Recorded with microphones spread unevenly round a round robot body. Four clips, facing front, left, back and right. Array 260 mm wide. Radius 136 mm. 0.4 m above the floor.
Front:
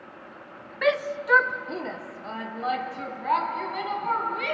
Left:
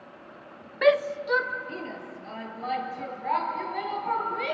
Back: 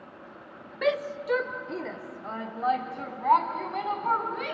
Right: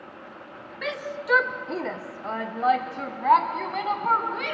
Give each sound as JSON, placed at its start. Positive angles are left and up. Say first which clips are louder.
{"t": 0.8, "sound": "a shout", "louder": "left 10 dB, front 3 dB", "azimuth_deg": 130, "distance_m": 0.9}